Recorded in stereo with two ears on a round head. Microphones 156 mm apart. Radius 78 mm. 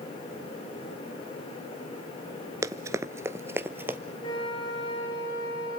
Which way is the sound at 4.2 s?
25° left (ahead or behind).